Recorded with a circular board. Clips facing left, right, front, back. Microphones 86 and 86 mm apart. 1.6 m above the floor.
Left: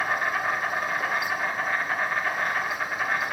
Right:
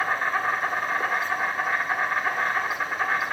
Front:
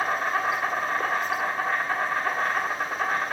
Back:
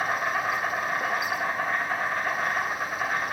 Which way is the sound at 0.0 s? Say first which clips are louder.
Right 1 dB, front 1 dB; 15° right.